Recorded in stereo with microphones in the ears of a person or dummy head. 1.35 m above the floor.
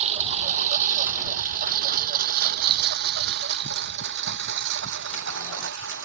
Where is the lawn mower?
35° right (ahead or behind); by 6.0 s 65° right (ahead or behind).